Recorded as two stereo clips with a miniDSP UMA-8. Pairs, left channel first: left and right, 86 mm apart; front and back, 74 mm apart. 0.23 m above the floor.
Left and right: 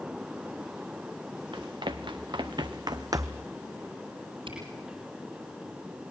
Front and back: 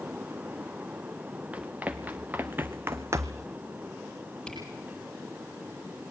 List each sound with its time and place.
1.5 s running footsteps: 110° right, 1.7 m; by 3.5 s 150° right, 0.5 m
4.5 s a camera shutter: 85° right, 8 m